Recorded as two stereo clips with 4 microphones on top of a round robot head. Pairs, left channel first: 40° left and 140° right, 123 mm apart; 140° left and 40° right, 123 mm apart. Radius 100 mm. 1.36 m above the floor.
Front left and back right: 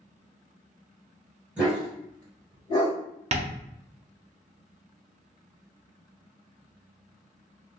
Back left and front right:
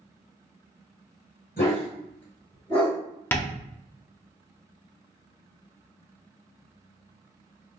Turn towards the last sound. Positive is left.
turn(degrees=-150)